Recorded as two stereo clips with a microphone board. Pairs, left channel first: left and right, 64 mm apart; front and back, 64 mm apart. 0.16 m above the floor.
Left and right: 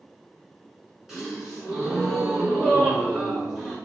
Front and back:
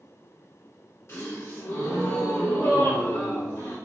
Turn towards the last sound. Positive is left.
turn(degrees=-15)